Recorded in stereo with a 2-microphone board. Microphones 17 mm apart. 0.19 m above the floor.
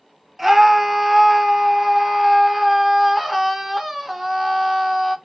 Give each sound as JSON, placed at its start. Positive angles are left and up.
{"t": 0.4, "sound": "a scream", "side_deg": -20, "distance_m": 1.0}